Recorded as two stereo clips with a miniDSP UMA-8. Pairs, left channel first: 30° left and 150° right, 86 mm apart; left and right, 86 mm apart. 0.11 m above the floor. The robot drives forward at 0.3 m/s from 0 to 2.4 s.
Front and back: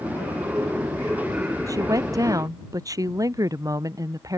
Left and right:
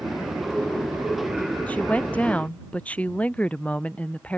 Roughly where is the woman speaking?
Behind.